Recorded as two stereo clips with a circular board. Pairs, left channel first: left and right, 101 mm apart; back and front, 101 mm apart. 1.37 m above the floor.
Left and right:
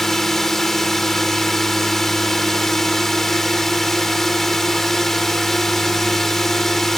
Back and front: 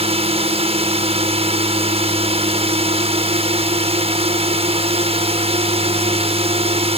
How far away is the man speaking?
I don't hear a man speaking.